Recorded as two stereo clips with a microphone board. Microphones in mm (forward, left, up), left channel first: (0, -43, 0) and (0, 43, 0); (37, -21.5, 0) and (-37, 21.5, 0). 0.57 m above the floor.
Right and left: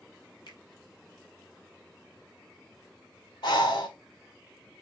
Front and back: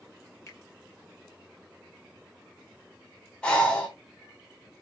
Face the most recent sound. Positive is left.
turn(degrees=-105)